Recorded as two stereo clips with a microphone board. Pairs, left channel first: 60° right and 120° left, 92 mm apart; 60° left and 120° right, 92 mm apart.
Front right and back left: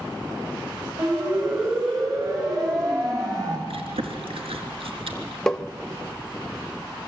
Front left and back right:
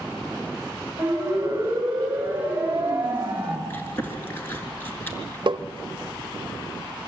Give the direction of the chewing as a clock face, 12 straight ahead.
8 o'clock.